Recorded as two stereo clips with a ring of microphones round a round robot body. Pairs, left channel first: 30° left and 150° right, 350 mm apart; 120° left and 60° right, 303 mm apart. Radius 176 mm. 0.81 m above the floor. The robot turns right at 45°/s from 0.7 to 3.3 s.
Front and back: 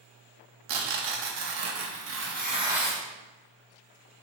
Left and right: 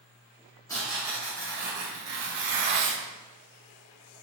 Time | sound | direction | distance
0.7 | tearing paper | 160° right | 0.8 m